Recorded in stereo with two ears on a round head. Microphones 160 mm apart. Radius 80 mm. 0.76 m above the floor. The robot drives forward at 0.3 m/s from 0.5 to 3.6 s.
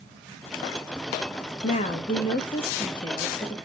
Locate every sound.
1.6 s a woman speaking: 40° left (ahead or behind), 0.6 m; by 3.6 s 20° left (ahead or behind), 1.0 m